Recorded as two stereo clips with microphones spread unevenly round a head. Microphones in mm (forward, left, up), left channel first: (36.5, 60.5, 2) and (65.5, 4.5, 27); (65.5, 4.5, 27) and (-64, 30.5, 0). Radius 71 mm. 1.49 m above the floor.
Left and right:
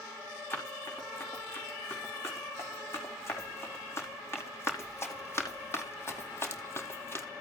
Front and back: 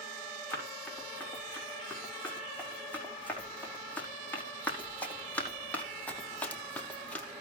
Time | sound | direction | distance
0.5 | running footsteps | 65° left | 7.5 m